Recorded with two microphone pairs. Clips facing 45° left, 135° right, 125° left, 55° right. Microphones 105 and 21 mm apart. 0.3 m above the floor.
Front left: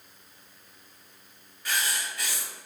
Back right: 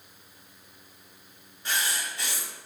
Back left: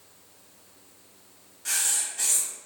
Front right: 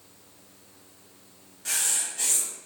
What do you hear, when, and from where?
1.6 s writing: 145° right, 1.3 m